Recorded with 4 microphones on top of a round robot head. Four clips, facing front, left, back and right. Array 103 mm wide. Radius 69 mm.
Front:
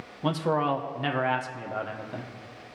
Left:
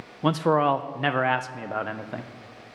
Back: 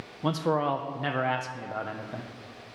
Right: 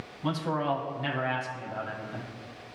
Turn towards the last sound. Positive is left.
turn(degrees=90)